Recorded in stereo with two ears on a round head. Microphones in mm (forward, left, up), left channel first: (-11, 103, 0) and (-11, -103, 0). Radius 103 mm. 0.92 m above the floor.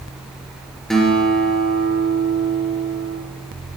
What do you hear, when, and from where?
0.9 s a guitar: centre (ahead or behind), 2.5 m